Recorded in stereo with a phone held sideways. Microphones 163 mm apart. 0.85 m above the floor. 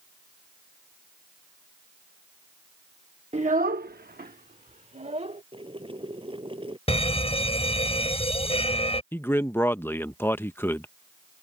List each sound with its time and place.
3.3 s a child speaking: 40° right (ahead or behind); by 5.4 s 45° right (ahead or behind)
5.5 s boiling: 35° right (ahead or behind)
6.9 s a fire alarm: 40° left (ahead or behind)
9.1 s a man speaking: 15° left (ahead or behind)